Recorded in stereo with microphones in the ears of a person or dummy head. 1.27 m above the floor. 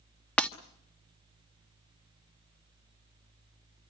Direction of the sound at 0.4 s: 5° left (ahead or behind).